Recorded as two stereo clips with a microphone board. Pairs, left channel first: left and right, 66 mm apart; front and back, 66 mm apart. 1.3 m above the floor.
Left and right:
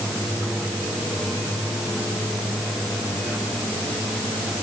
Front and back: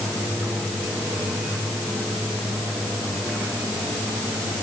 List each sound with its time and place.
Only background noise.